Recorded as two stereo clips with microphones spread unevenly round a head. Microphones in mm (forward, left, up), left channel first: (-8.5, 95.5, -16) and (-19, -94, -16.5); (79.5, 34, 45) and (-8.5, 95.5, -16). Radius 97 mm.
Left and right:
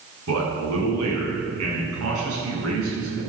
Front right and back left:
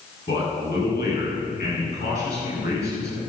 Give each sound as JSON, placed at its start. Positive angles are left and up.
{"t": 0.3, "sound": "a man speaking", "azimuth_deg": -80, "distance_m": 7.0}